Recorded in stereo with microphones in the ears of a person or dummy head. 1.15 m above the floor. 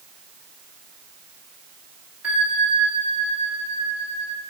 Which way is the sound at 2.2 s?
5° right (ahead or behind).